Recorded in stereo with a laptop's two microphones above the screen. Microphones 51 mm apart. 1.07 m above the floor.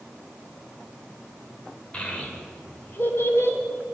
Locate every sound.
1.9 s a child speaking: 25° left (ahead or behind), 2.5 m; by 3.6 s 60° left (ahead or behind), 1.8 m